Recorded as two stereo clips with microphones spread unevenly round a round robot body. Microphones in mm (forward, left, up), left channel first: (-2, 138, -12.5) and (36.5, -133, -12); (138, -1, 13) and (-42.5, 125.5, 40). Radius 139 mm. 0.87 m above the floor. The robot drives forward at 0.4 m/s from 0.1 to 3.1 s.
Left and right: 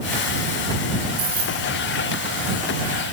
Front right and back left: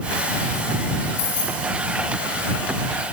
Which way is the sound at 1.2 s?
25° right.